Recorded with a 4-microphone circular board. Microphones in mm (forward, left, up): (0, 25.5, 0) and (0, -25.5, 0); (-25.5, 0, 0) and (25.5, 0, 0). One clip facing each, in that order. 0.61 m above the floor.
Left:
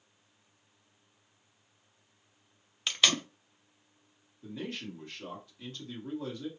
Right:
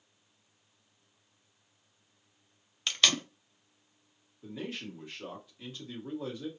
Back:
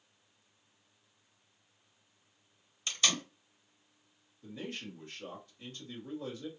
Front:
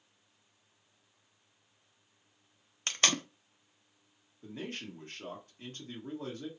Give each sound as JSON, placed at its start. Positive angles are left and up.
{"t": 2.9, "sound": "tape being pulled", "azimuth_deg": 5, "distance_m": 0.6}
{"t": 4.4, "sound": "a man speaking", "azimuth_deg": -15, "distance_m": 1.6}